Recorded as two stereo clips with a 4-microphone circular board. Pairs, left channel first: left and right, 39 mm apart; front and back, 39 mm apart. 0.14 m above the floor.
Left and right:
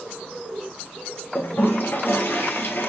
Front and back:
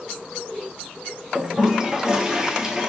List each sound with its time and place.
1.4 s a toilet flushing: 105° left, 0.9 m